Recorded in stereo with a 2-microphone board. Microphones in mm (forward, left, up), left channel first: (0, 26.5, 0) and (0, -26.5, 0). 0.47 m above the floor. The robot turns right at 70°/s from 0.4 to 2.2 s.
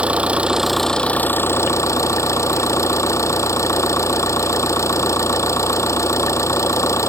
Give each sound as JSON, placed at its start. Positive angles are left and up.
{"t": 0.0, "sound": "an engine running", "azimuth_deg": -25}